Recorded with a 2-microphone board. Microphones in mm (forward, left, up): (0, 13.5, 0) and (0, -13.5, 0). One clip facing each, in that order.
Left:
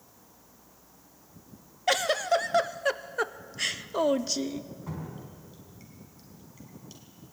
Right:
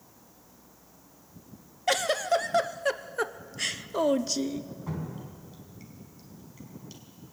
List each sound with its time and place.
1.9 s a giggle: 10° left (ahead or behind), 0.6 m
4.9 s dripping: 5° right (ahead or behind), 4.5 m